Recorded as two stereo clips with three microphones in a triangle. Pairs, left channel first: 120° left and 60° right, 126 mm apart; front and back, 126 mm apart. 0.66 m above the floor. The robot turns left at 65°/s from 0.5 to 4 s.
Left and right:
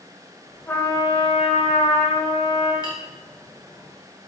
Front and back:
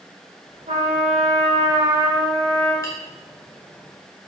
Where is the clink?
65° left, 1.6 m; by 2.9 s 60° left, 1.6 m.